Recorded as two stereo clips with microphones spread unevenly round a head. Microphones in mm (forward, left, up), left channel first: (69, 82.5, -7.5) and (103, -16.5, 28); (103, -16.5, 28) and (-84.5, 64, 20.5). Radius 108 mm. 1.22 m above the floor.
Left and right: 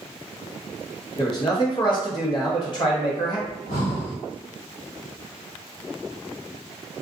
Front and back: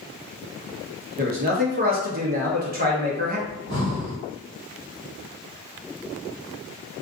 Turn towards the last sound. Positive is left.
turn(degrees=135)